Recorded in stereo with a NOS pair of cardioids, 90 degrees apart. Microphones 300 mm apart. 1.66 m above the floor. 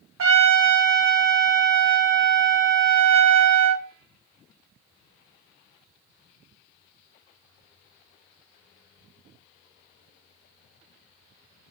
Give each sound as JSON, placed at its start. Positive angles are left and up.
{"t": 0.2, "sound": "a trumpet", "azimuth_deg": -45, "distance_m": 1.3}